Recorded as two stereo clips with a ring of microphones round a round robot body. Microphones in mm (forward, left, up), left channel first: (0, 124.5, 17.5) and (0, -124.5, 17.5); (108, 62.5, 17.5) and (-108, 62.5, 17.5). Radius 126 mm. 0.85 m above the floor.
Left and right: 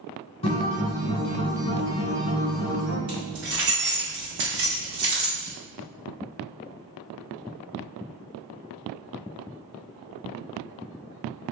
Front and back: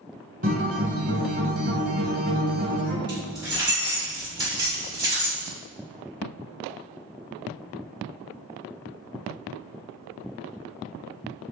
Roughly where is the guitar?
Behind left.